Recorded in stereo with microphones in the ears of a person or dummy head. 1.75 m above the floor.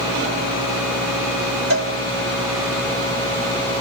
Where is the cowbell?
60° right (ahead or behind), 1.6 m.